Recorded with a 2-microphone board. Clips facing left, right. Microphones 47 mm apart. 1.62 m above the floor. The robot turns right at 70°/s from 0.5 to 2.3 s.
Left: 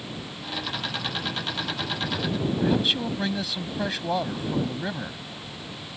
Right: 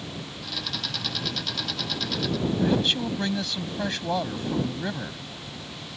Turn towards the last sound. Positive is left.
turn(degrees=5)  # may be behind; listen again after turning